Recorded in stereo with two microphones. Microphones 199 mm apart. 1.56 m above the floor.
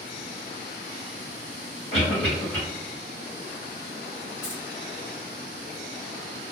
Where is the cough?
75° left (ahead or behind), 1.2 m.